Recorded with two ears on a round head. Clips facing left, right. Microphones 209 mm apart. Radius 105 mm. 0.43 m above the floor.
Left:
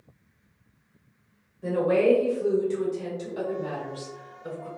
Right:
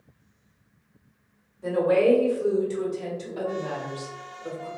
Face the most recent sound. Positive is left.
turn(degrees=10)  # may be behind; listen again after turning